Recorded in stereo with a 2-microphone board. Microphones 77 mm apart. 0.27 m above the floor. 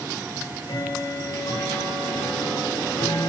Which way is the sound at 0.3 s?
80° left.